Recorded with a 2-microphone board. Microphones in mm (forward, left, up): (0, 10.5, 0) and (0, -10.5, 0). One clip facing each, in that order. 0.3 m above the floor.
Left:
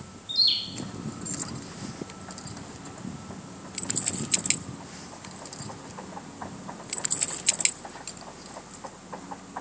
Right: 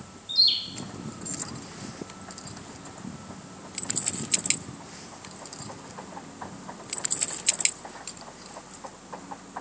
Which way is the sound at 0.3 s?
5° left (ahead or behind).